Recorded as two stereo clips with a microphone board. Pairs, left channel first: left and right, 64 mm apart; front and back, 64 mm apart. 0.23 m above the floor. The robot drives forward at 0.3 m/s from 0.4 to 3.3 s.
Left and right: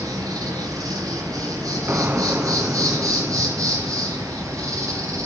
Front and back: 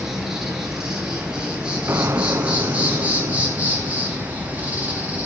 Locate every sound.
0.0 s an insect: 100° right, 3 m; by 5.3 s 115° right, 3 m
1.9 s an explosion: 140° right, 0.9 m; by 4.4 s 155° right, 1.2 m